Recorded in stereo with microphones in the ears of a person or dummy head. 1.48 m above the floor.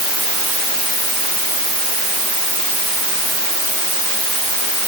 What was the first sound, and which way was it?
Only background noise.